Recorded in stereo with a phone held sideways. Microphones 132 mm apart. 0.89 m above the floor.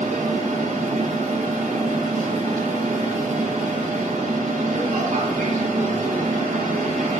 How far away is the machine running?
About 2 m.